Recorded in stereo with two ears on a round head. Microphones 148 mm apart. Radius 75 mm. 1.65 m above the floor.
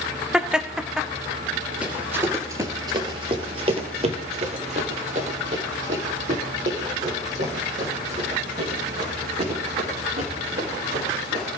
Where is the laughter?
5° right (ahead or behind), 0.6 m.